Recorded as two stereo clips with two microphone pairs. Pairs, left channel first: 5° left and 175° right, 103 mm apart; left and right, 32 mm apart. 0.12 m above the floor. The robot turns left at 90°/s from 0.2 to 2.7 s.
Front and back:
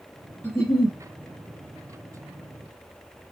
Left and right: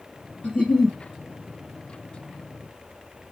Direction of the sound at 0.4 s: 60° left.